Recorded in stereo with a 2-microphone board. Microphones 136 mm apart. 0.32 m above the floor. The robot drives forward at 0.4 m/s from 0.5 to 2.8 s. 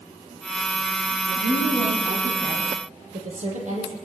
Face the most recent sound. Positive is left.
turn(degrees=-60)  # may be behind; listen again after turning